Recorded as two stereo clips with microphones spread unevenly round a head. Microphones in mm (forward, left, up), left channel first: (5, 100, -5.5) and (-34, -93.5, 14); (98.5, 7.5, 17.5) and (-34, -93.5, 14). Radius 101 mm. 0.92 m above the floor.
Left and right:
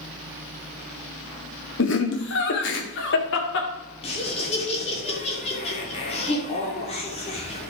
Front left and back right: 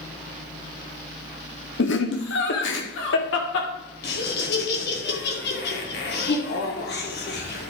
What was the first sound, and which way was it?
Laughter, 50° left.